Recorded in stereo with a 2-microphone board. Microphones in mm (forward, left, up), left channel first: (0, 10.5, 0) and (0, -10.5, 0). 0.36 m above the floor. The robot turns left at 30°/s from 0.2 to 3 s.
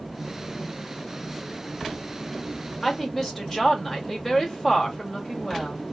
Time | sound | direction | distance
2.8 | a woman speaking | 10° left (ahead or behind) | 1.3 m